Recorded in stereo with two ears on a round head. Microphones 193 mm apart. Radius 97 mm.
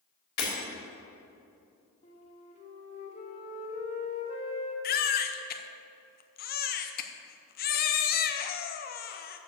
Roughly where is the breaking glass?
Left.